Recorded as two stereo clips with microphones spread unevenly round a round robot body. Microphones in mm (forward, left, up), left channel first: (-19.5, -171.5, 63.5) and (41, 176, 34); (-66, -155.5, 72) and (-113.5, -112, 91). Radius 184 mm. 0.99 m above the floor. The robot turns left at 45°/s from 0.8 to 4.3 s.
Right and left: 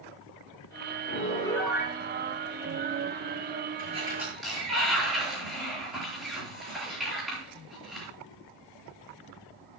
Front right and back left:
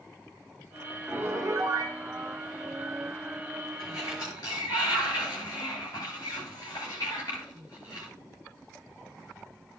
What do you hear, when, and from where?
1.1 s a piano: 165° right, 3.5 m; by 2.0 s 155° left, 3.5 m
3.8 s a sliding door: 15° left, 8.5 m; by 8.1 s 10° right, 8.5 m